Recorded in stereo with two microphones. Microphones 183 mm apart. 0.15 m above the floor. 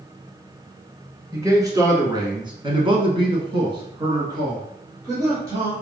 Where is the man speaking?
15° right (ahead or behind), 1.5 m; by 5.7 s 20° right (ahead or behind), 2 m.